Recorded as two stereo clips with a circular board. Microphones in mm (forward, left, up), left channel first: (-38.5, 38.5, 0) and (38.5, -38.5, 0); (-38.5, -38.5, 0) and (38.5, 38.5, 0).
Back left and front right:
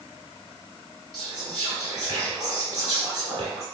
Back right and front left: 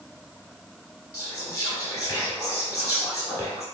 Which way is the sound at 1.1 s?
85° right.